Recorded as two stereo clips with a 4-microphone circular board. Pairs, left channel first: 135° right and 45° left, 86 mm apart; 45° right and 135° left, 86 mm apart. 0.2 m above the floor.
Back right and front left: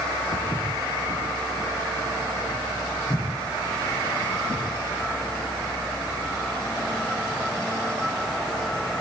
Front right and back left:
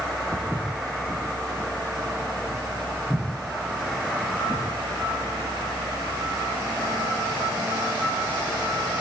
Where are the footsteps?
140° right, 5.5 m; by 4.6 s 110° right, 10.5 m.